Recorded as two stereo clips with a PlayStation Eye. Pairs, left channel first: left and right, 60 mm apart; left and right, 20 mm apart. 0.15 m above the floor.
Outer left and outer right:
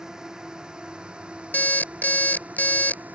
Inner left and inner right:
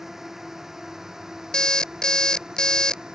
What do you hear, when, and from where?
0.0 s a drone: 10° right (ahead or behind); by 3.2 s 30° right (ahead or behind)
1.5 s an alarm clock: 30° left (ahead or behind)